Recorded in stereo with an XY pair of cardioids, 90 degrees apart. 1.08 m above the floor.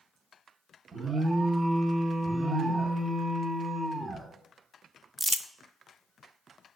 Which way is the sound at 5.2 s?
10° right.